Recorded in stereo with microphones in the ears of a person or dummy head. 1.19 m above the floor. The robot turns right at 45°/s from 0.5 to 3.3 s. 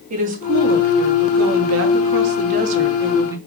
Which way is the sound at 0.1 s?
145° right.